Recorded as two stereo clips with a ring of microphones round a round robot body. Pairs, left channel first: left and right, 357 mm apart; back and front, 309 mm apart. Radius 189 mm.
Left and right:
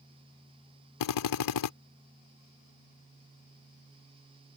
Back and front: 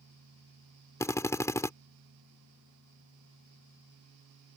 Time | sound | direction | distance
1.0 | a drill | 100° left | ?